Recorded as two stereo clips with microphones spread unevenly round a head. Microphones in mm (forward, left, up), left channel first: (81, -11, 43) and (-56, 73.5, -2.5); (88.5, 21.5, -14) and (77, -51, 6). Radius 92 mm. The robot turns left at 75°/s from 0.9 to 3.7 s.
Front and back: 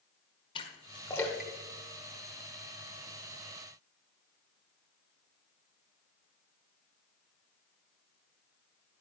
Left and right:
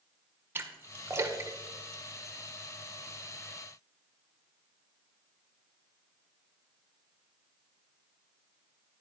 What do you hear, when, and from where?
0.6 s a splash: 70° right, 1.0 m; by 2.4 s 175° left, 1.0 m